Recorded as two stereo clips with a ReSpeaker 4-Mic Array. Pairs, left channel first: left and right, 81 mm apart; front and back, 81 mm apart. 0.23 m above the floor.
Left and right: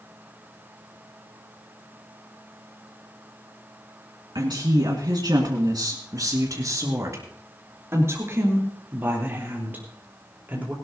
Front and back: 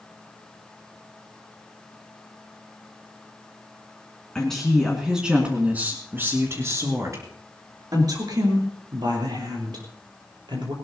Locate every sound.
4.3 s a woman speaking: 80° right, 2.5 m; by 10.7 s 160° right, 5.5 m